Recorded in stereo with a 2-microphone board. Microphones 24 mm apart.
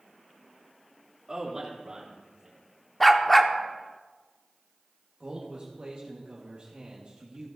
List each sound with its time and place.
1.3 s a man speaking: 20° right (ahead or behind), 2.5 m; by 2.5 s 30° right (ahead or behind), 3 m
3.0 s a dog barking: 10° left (ahead or behind), 0.6 m
5.2 s a man speaking: 40° right (ahead or behind), 1.2 m